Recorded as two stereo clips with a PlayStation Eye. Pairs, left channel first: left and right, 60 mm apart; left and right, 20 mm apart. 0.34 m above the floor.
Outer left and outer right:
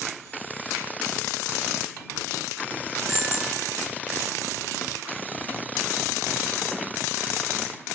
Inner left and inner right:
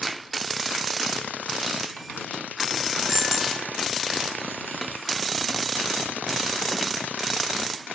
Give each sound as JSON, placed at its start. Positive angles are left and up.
{"t": 3.1, "sound": "a bicycle bell", "side_deg": -5}